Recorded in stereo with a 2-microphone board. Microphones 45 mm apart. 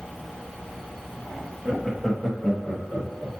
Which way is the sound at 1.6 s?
10° right (ahead or behind).